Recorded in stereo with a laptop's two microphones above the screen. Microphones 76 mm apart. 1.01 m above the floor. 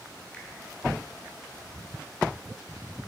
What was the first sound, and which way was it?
A finger snap, 15° left (ahead or behind).